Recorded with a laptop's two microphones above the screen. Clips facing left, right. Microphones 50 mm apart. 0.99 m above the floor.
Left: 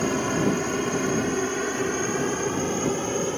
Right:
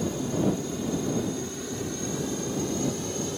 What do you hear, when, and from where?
0.0 s a helicopter: 65° left (ahead or behind); by 3.4 s 45° left (ahead or behind)